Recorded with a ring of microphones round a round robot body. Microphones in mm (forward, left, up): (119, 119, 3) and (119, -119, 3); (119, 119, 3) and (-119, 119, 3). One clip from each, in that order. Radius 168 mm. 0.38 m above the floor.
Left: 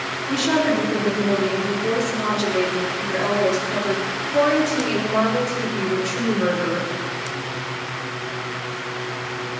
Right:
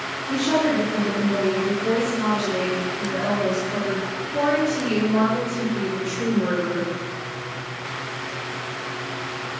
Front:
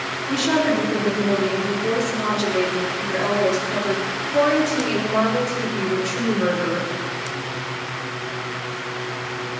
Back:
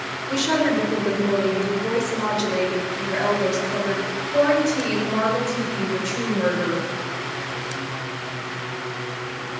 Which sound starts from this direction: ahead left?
A woman speaking, at 0.3 s.